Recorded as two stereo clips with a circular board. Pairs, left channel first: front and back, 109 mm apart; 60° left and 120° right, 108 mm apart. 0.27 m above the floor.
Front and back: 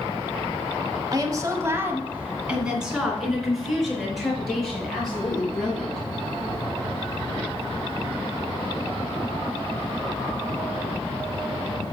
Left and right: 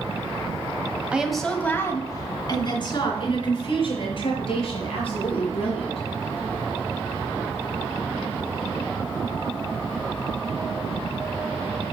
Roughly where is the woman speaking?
Behind.